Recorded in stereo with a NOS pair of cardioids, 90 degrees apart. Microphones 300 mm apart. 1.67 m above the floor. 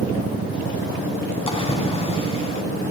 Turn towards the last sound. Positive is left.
turn(degrees=20)